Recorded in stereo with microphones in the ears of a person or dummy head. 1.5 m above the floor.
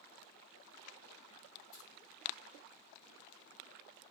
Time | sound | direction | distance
1.7 | keys jangling | 70° left (ahead or behind) | 1.3 m